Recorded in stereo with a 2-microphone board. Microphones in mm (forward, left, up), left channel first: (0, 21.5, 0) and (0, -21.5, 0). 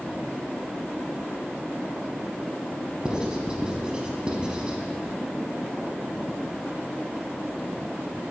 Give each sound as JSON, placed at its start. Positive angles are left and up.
{"t": 3.0, "sound": "writing", "side_deg": -20, "distance_m": 1.1}